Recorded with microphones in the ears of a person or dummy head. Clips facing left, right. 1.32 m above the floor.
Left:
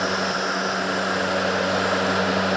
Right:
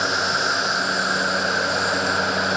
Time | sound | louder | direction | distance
0.0 | an insect | left 1 dB | 30° right (ahead or behind) | ?